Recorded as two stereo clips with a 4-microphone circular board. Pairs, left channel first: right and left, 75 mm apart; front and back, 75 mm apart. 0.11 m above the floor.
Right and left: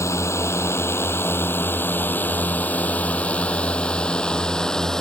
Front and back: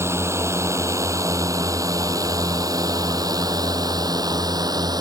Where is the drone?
135° right; by 5.0 s 170° right.